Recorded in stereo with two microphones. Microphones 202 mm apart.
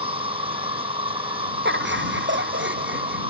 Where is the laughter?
60° right (ahead or behind).